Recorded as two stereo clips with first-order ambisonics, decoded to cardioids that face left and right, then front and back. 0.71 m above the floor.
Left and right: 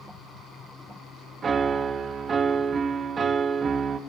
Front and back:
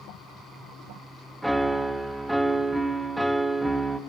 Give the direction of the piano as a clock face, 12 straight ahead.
3 o'clock.